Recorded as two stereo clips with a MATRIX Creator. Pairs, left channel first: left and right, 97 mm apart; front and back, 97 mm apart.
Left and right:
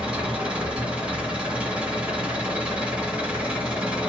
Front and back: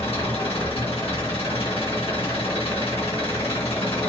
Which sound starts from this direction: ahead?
An engine running, at 0.0 s.